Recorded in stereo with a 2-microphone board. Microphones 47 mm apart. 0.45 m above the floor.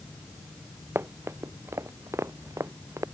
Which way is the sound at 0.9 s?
55° right (ahead or behind).